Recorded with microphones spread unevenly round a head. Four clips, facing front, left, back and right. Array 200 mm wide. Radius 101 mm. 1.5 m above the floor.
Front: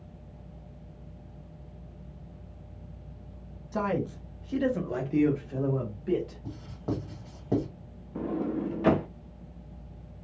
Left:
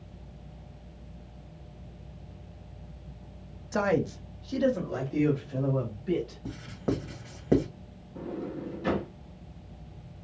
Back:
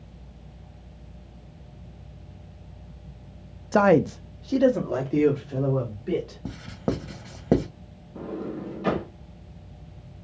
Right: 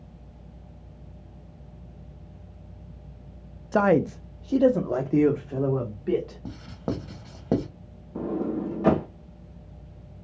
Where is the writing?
175° right, 1.0 m.